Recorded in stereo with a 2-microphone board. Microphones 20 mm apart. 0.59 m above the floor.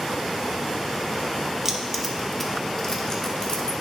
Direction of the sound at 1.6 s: 25° right (ahead or behind).